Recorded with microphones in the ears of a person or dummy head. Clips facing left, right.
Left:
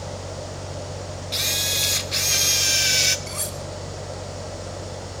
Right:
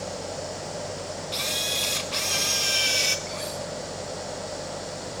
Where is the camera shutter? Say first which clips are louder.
Even; 20° left (ahead or behind), 1.4 m.